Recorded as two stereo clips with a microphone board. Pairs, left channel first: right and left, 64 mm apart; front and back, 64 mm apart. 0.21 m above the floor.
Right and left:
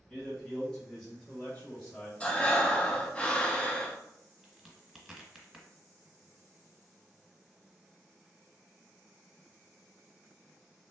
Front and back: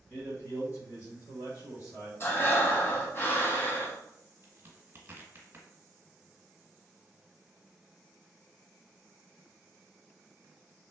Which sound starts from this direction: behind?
A crack, at 4.4 s.